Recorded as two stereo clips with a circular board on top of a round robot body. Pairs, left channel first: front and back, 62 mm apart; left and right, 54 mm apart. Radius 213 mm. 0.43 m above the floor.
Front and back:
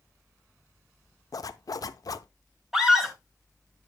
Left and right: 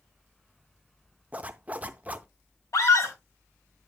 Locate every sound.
1.3 s a zipper: 30° right, 0.5 m
2.7 s a scream: 95° left, 4 m